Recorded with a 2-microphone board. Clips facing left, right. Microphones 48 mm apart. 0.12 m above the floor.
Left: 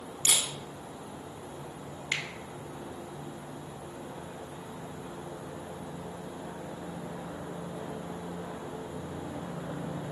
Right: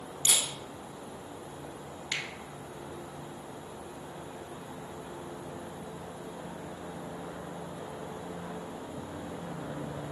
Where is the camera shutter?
70° left (ahead or behind), 1.2 m.